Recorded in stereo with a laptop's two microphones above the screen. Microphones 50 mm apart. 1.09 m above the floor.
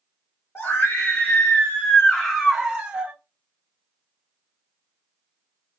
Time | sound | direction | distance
0.6 | a scream | 65° left (ahead or behind) | 1.0 m